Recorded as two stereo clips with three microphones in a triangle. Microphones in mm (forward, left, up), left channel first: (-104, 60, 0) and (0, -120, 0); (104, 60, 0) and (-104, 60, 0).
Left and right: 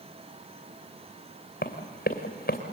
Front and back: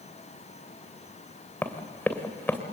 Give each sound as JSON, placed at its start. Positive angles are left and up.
{"t": 1.6, "sound": "running footsteps", "azimuth_deg": 85, "distance_m": 2.5}